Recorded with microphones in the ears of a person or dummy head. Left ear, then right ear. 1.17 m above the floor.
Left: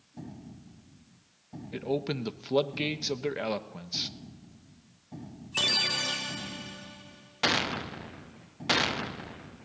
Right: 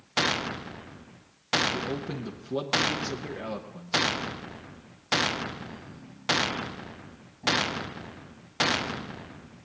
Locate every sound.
1.7 s a man speaking: 45° left (ahead or behind), 0.8 m